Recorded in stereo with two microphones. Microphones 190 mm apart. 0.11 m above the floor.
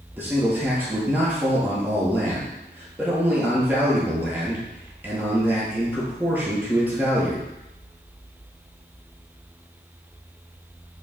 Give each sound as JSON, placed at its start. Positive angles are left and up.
{"t": 0.2, "sound": "a man speaking", "side_deg": -10, "distance_m": 1.8}